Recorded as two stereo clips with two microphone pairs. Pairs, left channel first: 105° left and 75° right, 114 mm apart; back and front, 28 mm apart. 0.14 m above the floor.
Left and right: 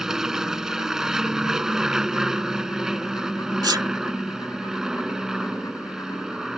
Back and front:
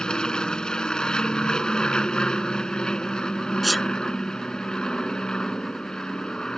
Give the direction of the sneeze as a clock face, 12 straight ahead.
3 o'clock.